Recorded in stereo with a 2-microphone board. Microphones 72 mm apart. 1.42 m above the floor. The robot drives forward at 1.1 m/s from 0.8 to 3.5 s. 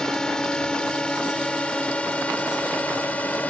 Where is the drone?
10° left (ahead or behind); by 3.5 s 20° left (ahead or behind).